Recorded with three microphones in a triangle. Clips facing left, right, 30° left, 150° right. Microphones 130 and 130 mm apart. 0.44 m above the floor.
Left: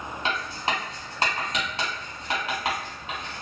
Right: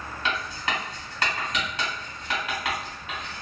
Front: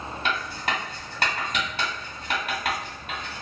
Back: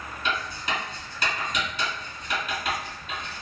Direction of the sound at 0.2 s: 35° left.